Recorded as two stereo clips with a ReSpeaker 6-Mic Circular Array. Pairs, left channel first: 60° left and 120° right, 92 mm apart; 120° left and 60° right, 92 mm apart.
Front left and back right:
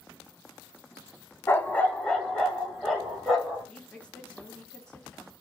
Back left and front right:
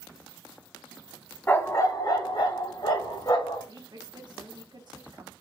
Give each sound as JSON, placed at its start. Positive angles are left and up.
{"t": 1.5, "sound": "a dog barking", "azimuth_deg": 85, "distance_m": 0.7}
{"t": 3.7, "sound": "a woman speaking", "azimuth_deg": -20, "distance_m": 1.2}